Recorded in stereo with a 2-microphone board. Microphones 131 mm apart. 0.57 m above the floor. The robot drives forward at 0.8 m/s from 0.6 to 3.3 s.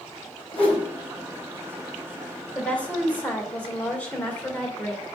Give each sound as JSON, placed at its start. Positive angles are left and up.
{"t": 0.5, "sound": "a whoosh", "side_deg": 15, "distance_m": 3.5}
{"t": 2.5, "sound": "a woman speaking", "side_deg": 10, "distance_m": 3.0}